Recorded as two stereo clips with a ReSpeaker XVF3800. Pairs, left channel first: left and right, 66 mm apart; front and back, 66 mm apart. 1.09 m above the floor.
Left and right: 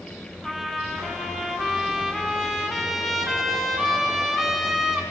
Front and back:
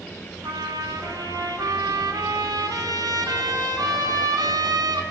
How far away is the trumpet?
About 4 m.